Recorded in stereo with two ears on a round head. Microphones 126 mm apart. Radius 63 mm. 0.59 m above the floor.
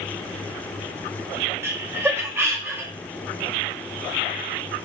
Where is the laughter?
15° right (ahead or behind), 0.6 m.